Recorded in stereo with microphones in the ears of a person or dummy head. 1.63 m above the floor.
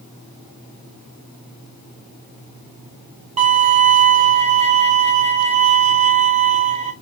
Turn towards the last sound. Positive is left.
turn(degrees=-35)  # may be behind; listen again after turning